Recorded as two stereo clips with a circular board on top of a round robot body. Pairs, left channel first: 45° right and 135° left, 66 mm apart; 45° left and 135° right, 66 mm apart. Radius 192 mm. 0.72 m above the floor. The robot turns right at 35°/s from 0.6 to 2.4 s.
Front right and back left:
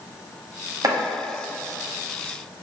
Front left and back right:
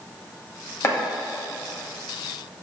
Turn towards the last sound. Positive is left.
turn(degrees=155)